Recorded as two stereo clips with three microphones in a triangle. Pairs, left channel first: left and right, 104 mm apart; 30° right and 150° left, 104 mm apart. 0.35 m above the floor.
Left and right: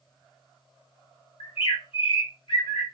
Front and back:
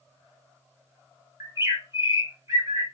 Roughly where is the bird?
Left.